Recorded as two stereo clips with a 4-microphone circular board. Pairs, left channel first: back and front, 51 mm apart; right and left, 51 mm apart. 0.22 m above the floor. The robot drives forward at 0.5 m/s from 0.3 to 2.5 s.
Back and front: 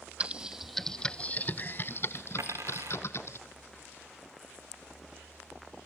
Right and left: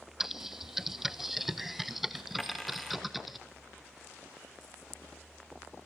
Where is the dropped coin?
5° right, 3 m.